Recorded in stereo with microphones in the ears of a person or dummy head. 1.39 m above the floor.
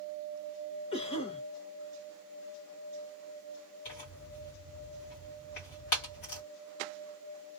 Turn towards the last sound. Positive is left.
turn(degrees=50)  # may be behind; listen again after turning